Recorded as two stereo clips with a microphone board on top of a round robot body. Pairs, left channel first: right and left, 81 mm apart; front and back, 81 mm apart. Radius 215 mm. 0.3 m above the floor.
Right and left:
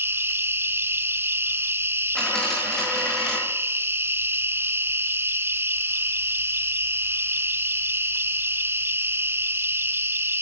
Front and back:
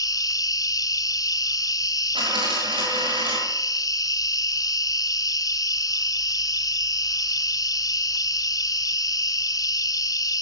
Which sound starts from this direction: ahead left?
An insect, at 0.0 s.